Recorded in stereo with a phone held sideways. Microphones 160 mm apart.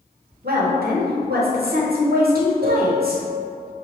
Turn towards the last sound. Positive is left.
turn(degrees=-60)  # may be behind; listen again after turning